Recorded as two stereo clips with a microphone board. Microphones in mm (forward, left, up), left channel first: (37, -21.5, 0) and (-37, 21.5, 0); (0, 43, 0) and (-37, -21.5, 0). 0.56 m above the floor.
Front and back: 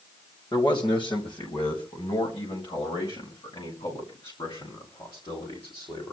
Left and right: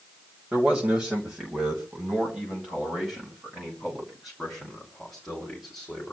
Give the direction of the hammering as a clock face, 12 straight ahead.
I don't hear hammering.